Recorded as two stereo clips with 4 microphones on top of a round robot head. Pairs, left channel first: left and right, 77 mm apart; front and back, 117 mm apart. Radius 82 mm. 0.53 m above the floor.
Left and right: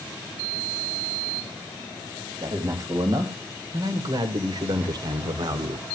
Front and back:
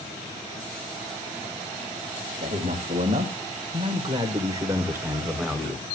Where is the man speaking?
145° right, 3.5 m; by 5.9 s 85° right, 1.7 m.